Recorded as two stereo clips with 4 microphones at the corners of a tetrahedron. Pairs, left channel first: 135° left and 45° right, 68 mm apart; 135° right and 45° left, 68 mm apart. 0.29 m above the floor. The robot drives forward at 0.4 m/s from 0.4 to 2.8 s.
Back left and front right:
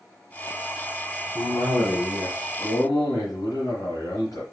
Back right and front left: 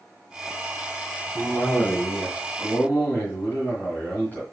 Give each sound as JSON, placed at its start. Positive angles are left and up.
{"t": 1.4, "sound": "a cough", "azimuth_deg": 155, "distance_m": 2.0}